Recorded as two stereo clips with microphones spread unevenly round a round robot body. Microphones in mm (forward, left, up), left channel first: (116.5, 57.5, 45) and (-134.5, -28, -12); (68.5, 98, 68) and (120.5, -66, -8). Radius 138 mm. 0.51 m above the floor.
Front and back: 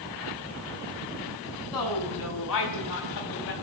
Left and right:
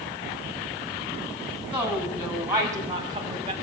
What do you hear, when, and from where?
1.7 s a woman speaking: 5° left, 4.5 m; by 3.5 s 25° right, 3.5 m